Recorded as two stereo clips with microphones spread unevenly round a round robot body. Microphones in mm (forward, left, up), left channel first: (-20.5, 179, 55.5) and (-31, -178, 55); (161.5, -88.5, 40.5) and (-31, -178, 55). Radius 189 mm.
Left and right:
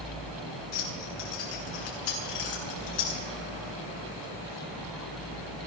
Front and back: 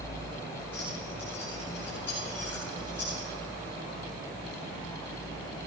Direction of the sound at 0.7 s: 110° left.